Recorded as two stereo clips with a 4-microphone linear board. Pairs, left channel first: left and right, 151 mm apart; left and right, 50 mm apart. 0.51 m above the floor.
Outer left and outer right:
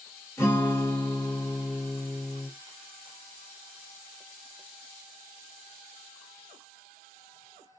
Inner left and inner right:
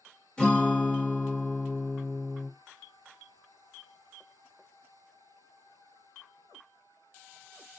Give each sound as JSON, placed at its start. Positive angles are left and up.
{"t": 0.4, "sound": "a guitar", "side_deg": 15, "distance_m": 1.5}